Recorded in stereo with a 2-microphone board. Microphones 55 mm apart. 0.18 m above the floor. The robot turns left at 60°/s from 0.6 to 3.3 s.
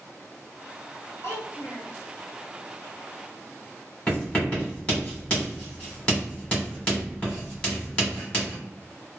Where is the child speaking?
105° left, 1.2 m; by 1.9 s 65° left, 1.2 m.